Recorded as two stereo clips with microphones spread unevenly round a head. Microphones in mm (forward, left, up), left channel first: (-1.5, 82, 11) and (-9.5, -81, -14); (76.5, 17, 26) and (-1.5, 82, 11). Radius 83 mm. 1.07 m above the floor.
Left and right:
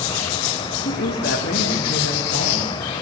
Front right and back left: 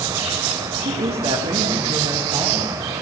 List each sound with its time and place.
0.8 s a woman speaking: 120° left, 1.3 m; by 2.8 s 110° left, 3.5 m